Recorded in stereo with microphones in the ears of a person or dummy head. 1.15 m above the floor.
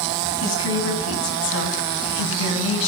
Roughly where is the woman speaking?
Left.